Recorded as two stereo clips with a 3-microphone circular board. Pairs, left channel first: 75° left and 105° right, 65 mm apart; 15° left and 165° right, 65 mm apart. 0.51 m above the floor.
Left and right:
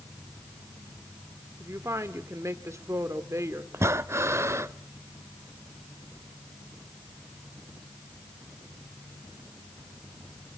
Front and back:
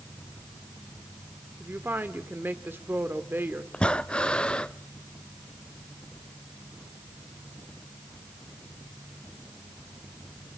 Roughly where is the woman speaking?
Behind right.